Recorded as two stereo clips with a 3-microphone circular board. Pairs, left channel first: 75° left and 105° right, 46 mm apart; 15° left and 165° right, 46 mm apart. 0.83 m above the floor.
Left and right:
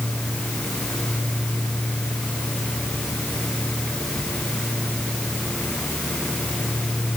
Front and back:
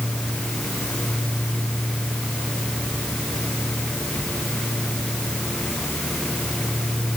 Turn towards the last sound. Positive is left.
No sound to turn to.